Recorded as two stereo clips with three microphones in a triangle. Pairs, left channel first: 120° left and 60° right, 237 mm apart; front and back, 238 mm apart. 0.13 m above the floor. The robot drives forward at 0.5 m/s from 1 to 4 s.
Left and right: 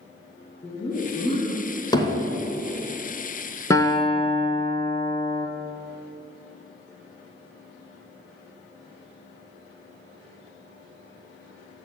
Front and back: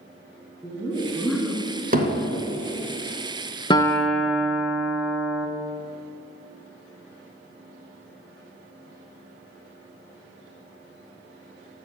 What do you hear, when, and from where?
0.6 s laughter: 80° left, 1.2 m; by 1.7 s 115° left, 1.2 m
1.9 s hammering: straight behind, 1.2 m
3.7 s a guitar: 55° left, 0.5 m; by 5.5 s 85° left, 0.5 m